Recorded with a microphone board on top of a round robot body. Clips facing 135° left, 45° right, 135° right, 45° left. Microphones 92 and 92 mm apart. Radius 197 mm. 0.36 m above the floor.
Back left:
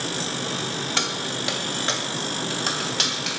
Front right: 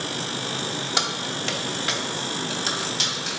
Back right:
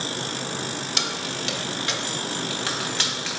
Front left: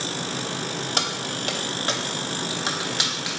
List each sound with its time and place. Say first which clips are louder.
1.0 s keys jangling: even, front left 2 dB; 25° left, 0.8 m; by 3.3 s 120° left, 1.3 m